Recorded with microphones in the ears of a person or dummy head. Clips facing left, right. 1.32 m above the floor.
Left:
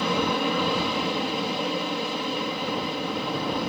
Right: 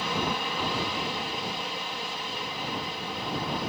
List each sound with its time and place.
0.0 s an aircraft: 60° left (ahead or behind)